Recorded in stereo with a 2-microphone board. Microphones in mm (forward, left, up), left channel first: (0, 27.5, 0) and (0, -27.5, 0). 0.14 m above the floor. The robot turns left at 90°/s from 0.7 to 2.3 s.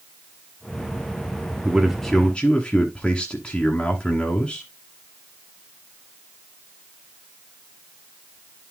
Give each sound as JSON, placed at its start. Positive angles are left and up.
{"t": 1.6, "sound": "a man speaking", "side_deg": -10, "distance_m": 1.1}